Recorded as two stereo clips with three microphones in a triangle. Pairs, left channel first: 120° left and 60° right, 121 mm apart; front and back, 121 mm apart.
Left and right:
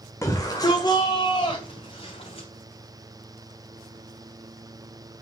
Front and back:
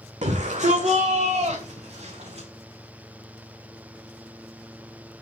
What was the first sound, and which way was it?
A shout, straight behind.